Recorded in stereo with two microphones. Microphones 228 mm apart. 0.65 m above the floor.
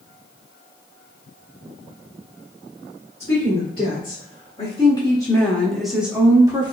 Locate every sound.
3.2 s a woman speaking: 50° left (ahead or behind), 1.8 m; by 6.7 s 20° right (ahead or behind), 1.3 m